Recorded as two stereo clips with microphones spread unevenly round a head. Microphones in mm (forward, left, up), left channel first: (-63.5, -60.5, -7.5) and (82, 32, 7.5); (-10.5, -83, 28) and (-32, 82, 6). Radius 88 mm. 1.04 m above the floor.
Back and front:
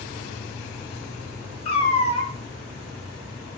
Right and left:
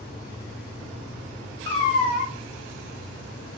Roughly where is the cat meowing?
Right.